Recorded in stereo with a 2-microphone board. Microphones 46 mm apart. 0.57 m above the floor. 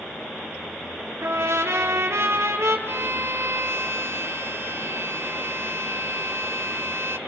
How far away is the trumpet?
About 2.5 m.